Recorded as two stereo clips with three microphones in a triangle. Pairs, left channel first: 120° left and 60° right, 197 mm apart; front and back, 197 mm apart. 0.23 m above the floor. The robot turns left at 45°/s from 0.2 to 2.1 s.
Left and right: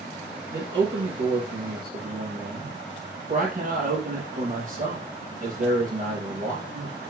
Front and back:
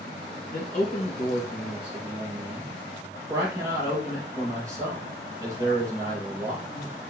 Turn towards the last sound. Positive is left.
turn(degrees=-105)